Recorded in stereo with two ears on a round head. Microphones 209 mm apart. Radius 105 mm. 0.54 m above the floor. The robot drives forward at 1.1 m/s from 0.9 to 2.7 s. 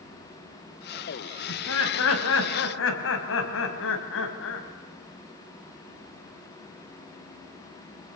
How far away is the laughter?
About 4 m.